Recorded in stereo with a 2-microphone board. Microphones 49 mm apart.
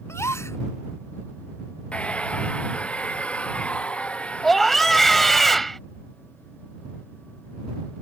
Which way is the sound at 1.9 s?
25° left (ahead or behind).